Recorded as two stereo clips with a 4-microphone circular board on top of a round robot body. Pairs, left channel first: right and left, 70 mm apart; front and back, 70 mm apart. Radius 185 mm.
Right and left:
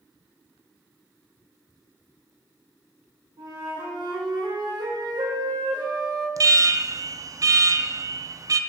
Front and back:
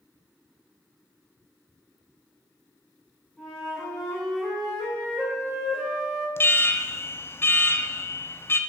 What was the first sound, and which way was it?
A flute, 90° left.